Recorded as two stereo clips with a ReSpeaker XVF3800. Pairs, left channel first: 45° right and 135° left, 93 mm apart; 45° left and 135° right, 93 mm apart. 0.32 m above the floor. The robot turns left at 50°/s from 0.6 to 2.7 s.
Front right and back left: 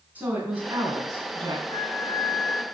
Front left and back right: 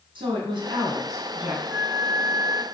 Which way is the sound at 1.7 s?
45° right.